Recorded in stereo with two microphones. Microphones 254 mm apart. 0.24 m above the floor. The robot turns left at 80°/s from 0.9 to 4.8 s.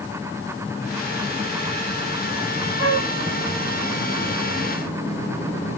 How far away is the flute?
About 3 m.